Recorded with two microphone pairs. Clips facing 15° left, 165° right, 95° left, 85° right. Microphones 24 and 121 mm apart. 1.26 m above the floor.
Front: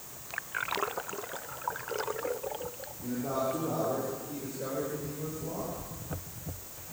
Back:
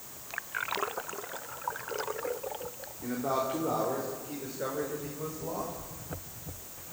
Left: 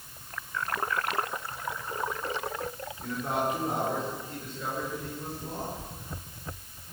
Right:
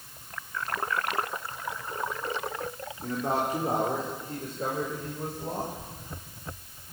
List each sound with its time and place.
3.0 s a man speaking: 145° right, 3.5 m; by 5.7 s 120° right, 6 m